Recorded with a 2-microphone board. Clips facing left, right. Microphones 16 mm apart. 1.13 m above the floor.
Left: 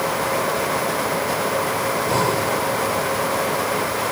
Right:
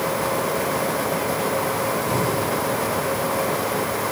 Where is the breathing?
40° left (ahead or behind).